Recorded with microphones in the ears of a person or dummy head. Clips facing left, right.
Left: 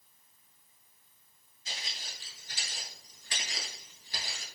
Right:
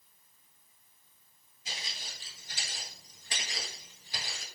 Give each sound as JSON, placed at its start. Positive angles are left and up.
{"t": 1.6, "sound": "footsteps", "side_deg": -20, "distance_m": 1.3}